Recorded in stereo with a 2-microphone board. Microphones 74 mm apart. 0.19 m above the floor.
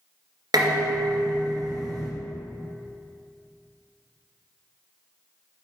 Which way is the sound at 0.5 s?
65° right (ahead or behind).